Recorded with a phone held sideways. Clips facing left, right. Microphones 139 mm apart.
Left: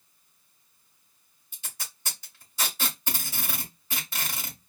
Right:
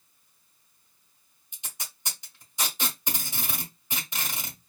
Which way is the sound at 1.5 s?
20° right (ahead or behind).